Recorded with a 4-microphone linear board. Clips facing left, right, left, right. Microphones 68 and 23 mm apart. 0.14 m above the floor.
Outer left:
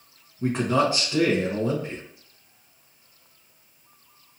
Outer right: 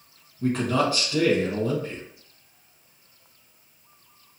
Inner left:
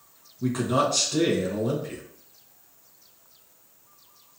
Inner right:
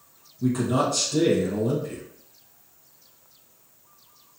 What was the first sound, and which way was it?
A man speaking, 20° left (ahead or behind).